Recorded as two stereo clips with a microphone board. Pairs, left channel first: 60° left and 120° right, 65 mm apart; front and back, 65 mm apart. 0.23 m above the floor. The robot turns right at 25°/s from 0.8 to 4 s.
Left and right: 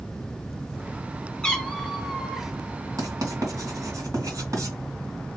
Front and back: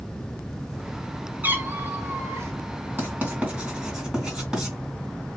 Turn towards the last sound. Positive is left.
turn(degrees=-100)